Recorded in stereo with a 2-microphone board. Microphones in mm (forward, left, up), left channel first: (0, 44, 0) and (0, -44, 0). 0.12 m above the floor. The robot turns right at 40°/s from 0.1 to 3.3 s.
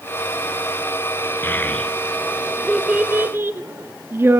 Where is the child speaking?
25° left (ahead or behind), 0.9 m; by 4.4 s 25° right (ahead or behind), 0.9 m.